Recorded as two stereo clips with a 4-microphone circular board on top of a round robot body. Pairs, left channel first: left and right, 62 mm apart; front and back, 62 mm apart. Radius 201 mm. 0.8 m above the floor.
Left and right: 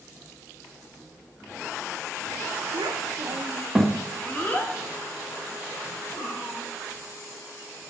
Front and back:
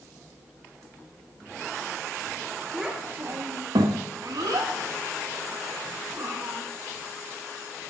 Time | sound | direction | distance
2.7 | a child speaking | 95° right | 1.3 m